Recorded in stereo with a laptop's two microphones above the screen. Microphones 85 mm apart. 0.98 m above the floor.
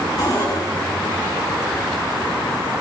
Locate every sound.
0.2 s a cupboard door: 50° left (ahead or behind), 9 m